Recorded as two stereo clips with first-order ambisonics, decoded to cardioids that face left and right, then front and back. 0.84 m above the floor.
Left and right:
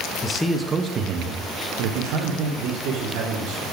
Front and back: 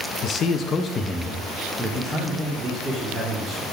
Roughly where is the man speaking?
Ahead left.